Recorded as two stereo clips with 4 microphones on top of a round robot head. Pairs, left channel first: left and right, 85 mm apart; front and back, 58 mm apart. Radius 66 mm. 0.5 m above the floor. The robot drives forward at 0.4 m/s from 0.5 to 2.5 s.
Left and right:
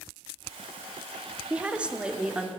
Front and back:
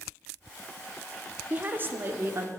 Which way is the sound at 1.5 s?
155° right.